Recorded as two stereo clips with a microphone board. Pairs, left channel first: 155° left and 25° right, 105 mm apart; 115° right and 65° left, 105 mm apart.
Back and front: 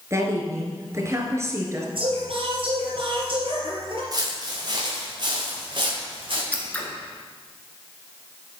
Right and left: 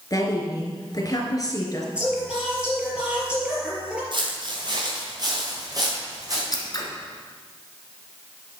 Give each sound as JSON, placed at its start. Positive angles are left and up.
{"t": 0.1, "sound": "a woman speaking", "azimuth_deg": -75, "distance_m": 2.5}
{"t": 1.9, "sound": "singing", "azimuth_deg": -10, "distance_m": 3.5}
{"t": 4.1, "sound": "footsteps", "azimuth_deg": 30, "distance_m": 4.0}
{"t": 6.5, "sound": "scissors", "azimuth_deg": -135, "distance_m": 2.0}